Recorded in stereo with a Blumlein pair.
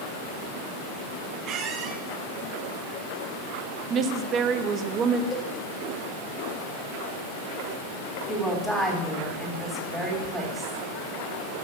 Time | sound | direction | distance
1.4 | a squeak | 30° right | 0.9 m
3.9 | a woman speaking | 30° right | 0.8 m
5.3 | a cowbell | 25° left | 1.2 m
8.3 | a woman speaking | straight ahead | 2.5 m